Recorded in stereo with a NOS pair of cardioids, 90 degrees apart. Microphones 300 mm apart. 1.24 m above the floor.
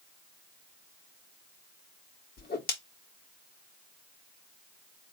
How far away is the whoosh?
About 1.9 m.